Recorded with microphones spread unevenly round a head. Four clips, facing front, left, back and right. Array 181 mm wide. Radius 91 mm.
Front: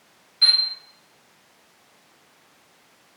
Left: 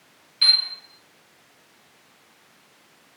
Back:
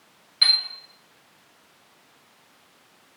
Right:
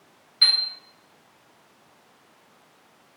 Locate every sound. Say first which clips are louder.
0.4 s a chime: left 1 dB, even; 150° right, 2 m